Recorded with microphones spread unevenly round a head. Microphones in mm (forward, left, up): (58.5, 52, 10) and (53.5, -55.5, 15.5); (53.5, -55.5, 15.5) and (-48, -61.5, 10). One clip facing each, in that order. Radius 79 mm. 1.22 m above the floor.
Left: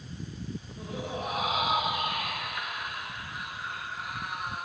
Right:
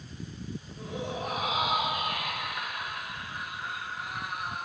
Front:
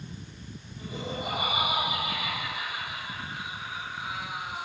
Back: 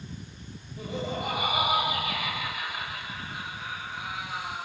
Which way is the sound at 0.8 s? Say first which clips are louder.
Right 1 dB, back 3 dB; 170° left.